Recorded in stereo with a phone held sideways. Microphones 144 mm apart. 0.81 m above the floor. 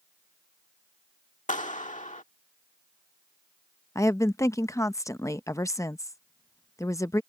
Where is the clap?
60° left (ahead or behind).